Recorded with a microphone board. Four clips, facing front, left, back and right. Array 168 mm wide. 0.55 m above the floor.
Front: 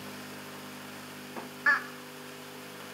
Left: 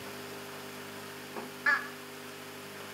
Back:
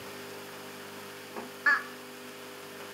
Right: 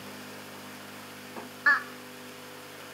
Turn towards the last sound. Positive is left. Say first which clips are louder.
# right 5 dB, even
turn(degrees=-85)